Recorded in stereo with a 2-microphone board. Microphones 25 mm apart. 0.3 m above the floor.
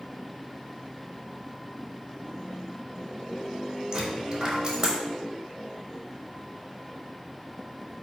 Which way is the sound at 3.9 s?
40° right (ahead or behind).